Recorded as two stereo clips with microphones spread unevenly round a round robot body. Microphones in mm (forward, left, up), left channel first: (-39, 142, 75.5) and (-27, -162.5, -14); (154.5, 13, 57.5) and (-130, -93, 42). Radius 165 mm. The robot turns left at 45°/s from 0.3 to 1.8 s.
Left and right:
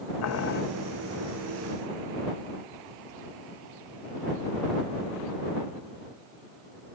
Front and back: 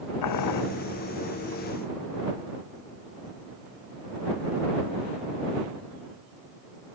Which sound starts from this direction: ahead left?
Boiling, at 0.2 s.